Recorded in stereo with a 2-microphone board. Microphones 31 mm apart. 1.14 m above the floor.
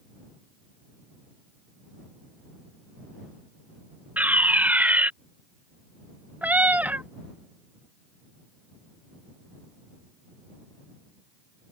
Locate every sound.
4.2 s a fire alarm: 75° right (ahead or behind)
6.4 s a cat meowing: 70° right (ahead or behind)